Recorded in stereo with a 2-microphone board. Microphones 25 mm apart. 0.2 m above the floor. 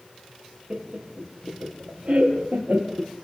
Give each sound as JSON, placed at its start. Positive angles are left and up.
{"t": 0.7, "sound": "laughter", "side_deg": -45, "distance_m": 4.5}